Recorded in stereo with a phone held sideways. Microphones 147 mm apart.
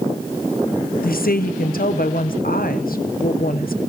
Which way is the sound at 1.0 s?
75° left (ahead or behind).